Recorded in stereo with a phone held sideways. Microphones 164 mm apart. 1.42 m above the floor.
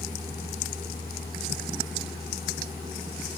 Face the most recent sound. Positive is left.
turn(degrees=70)  # may be behind; listen again after turning